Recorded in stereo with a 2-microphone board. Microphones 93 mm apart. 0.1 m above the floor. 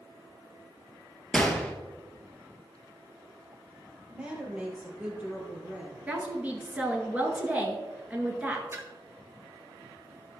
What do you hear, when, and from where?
1.3 s a gunshot: 10° left (ahead or behind), 1.1 m
4.1 s a woman speaking: 15° right (ahead or behind), 2.5 m
6.1 s a woman speaking: 15° right (ahead or behind), 1.4 m
8.7 s a splash: 25° right (ahead or behind), 1.0 m